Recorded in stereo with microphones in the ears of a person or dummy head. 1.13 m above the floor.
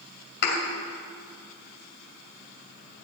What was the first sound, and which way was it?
A thud, 60° left (ahead or behind).